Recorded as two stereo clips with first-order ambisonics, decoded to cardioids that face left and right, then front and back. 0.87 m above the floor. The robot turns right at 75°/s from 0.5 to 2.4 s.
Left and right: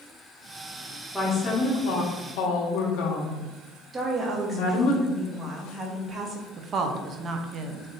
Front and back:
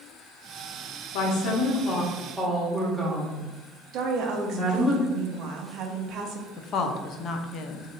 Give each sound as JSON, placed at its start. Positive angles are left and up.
{"t": 1.1, "sound": "a woman speaking", "azimuth_deg": -5, "distance_m": 1.3}
{"t": 3.9, "sound": "a woman speaking", "azimuth_deg": -155, "distance_m": 0.9}
{"t": 6.6, "sound": "a woman speaking", "azimuth_deg": -40, "distance_m": 0.5}